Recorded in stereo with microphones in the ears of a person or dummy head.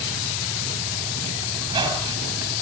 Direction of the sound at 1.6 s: 20° right (ahead or behind).